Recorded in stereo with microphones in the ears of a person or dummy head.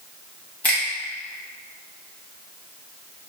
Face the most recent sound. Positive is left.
turn(degrees=15)  # may be behind; listen again after turning